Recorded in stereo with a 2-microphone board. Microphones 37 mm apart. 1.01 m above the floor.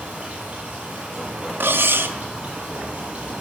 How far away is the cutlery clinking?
About 0.7 m.